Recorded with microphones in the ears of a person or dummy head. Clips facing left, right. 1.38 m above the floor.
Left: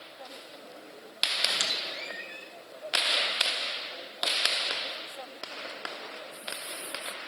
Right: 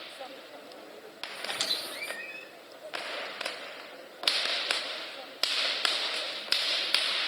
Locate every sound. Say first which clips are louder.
1.5 s a squeak: left 1 dB; 5° left (ahead or behind), 1.4 m